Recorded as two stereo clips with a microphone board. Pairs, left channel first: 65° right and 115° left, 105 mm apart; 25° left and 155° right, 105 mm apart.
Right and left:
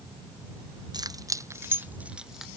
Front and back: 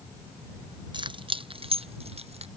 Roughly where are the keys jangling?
Behind.